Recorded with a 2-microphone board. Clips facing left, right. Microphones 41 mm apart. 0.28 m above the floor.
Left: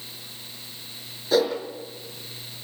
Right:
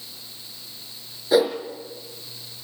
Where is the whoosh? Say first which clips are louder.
Right 3 dB; 10° right (ahead or behind), 4 m.